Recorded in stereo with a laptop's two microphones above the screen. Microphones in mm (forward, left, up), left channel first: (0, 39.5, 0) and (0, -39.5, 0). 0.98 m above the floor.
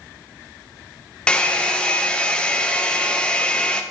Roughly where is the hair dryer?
Centre.